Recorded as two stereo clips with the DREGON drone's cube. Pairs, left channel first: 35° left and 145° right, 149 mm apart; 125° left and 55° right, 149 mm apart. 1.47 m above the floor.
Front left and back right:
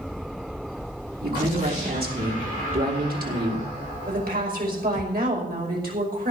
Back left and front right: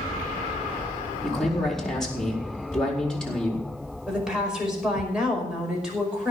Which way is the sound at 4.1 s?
140° right.